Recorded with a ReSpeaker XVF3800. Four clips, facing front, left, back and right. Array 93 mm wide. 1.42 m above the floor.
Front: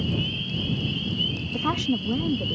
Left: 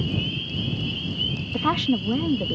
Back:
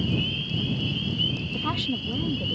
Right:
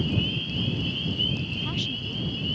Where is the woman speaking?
70° left.